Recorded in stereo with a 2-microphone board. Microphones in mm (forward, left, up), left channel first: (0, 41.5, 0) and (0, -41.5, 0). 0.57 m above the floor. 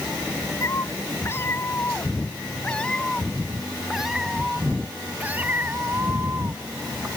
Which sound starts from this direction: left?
A cat meowing, at 0.6 s.